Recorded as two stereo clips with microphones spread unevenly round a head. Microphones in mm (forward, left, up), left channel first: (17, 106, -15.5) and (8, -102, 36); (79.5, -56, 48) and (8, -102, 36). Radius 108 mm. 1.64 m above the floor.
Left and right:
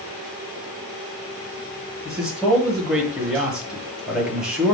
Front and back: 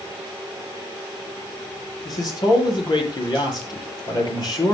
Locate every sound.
2.0 s a man speaking: 5° right, 8.5 m